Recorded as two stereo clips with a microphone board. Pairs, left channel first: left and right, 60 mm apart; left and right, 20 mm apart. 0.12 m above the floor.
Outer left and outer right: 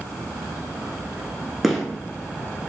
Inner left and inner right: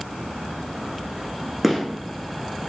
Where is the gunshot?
5° right (ahead or behind), 1.0 m.